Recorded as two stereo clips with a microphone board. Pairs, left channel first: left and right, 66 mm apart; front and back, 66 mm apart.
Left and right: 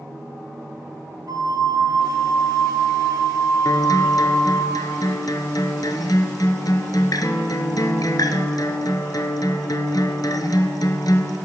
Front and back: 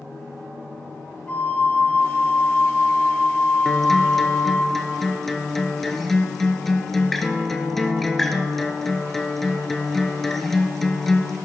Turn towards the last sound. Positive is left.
turn(degrees=85)